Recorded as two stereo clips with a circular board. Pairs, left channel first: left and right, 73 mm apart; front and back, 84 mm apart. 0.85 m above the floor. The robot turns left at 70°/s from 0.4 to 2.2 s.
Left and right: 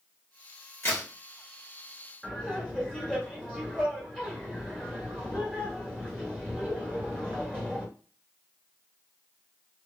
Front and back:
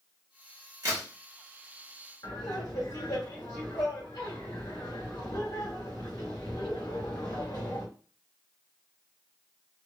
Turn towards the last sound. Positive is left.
turn(degrees=10)